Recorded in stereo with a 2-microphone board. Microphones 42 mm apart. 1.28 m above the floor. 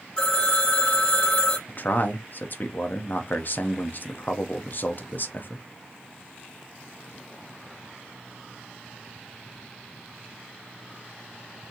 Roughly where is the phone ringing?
Centre.